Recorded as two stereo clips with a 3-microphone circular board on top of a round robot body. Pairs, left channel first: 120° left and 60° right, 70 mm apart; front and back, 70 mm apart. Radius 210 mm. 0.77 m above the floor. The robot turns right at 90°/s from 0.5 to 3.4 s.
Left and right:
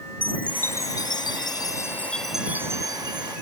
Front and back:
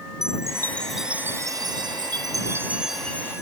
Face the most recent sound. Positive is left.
turn(degrees=-50)